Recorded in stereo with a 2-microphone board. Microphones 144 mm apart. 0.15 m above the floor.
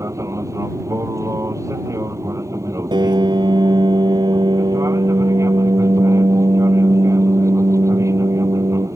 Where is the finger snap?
I don't hear a finger snap.